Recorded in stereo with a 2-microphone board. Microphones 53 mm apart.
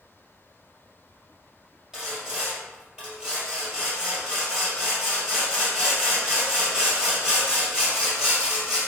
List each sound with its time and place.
1.9 s sawing: 15° right (ahead or behind), 2.0 m